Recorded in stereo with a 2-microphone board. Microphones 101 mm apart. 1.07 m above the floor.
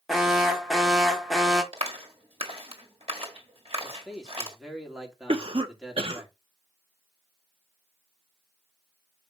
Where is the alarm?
5° right (ahead or behind), 1.4 m.